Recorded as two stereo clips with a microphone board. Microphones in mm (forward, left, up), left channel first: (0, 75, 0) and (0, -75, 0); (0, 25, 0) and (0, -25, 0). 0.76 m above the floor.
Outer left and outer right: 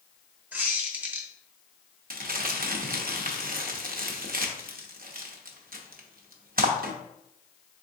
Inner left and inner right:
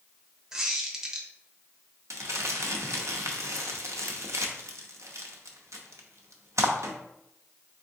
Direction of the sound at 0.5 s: 10° right (ahead or behind).